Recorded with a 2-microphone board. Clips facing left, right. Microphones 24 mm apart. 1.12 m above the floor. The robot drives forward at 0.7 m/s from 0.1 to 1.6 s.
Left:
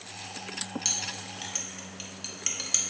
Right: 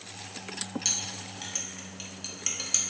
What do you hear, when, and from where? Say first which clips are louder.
0.8 s a clink: even; 5° left (ahead or behind), 1.5 m